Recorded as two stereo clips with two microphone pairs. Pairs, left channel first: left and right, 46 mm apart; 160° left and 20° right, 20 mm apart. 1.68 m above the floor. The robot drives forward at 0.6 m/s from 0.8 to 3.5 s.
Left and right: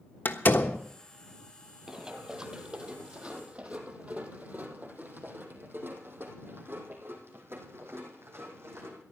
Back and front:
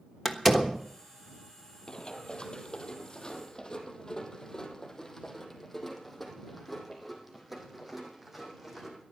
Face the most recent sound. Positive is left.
turn(degrees=-90)